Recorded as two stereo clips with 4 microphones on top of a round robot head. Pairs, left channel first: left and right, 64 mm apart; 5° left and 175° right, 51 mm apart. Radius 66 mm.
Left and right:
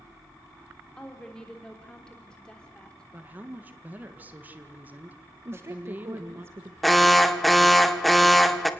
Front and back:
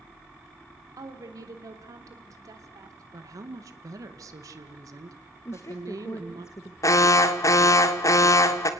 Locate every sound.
1.0 s a woman speaking: 170° left, 3.5 m
3.1 s a woman speaking: 160° right, 1.9 m
5.5 s a woman speaking: 40° right, 1.6 m
6.8 s an alarm: straight ahead, 1.8 m